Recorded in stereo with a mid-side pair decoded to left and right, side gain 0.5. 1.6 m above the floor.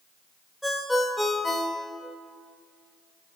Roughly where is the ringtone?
Ahead.